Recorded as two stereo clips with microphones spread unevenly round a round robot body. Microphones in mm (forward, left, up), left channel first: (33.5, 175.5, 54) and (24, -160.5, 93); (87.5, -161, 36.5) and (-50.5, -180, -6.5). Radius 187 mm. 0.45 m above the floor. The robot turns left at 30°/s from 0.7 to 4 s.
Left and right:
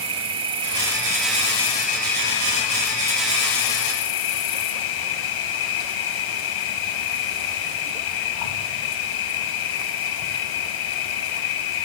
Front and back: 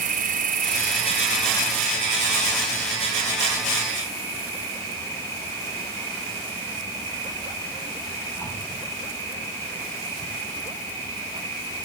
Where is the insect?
170° right, 2.5 m; by 11.8 s 95° left, 2.5 m.